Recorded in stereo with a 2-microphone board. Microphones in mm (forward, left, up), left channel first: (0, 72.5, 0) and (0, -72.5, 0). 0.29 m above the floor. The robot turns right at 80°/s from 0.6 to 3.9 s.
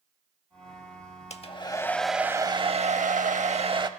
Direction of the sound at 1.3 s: 120° left.